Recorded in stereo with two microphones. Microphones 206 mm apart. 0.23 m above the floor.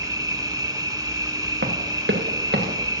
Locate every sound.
0.0 s an insect: 20° right (ahead or behind), 0.9 m
1.6 s running footsteps: 80° right, 1.9 m; by 2.8 s 60° right (ahead or behind), 2.5 m